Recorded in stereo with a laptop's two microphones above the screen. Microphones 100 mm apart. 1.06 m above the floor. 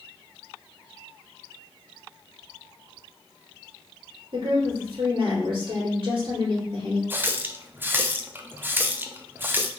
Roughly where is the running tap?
Centre.